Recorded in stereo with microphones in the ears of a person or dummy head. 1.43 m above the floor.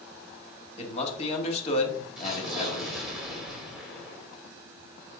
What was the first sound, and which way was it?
A man speaking, 35° left (ahead or behind).